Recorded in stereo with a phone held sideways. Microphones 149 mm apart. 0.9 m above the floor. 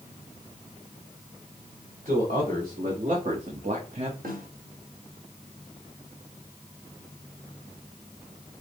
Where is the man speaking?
65° right (ahead or behind), 2.0 m; by 4.1 s 45° right (ahead or behind), 0.7 m.